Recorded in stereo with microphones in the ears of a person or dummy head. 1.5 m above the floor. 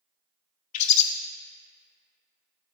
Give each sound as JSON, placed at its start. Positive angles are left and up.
{"t": 0.7, "sound": "a bird", "side_deg": 40, "distance_m": 0.5}